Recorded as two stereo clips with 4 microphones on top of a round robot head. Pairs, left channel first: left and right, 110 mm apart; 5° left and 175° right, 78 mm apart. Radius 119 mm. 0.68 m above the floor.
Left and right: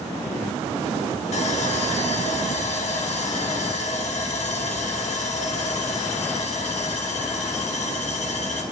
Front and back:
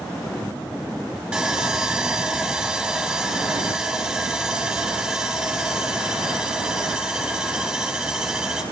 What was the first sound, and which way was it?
Sawing, 110° left.